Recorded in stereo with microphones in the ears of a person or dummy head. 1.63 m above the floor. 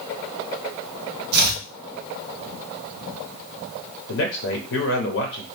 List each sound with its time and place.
1.3 s chopping: 60° right (ahead or behind), 0.6 m
4.1 s a man speaking: 65° left (ahead or behind), 0.8 m